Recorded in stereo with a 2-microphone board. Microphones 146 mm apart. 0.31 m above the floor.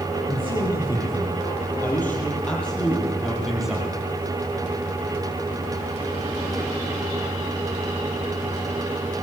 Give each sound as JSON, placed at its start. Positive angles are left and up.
{"t": 0.3, "sound": "a man speaking", "side_deg": 30, "distance_m": 8.5}